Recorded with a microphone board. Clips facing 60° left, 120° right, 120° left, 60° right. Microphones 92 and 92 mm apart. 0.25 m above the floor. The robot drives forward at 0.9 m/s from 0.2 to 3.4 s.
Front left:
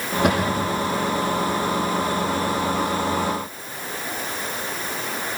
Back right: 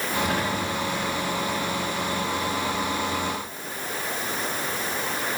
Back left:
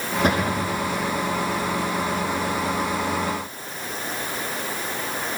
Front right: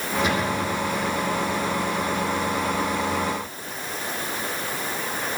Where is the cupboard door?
80° left, 9 m; by 0.7 s 85° left, 9 m.